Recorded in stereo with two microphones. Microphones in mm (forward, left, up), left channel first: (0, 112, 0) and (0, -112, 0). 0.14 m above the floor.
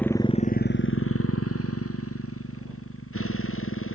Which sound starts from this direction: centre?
A motorcycle, at 0.0 s.